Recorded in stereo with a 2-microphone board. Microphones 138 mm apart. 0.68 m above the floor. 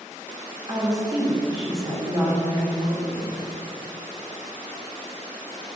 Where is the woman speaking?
35° right (ahead or behind), 1.8 m.